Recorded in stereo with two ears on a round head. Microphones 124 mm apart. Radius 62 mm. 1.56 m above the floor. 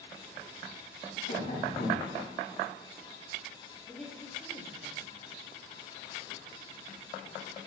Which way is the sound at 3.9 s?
5° left (ahead or behind).